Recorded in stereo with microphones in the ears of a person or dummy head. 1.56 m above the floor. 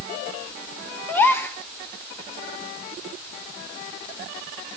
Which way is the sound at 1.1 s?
15° left (ahead or behind).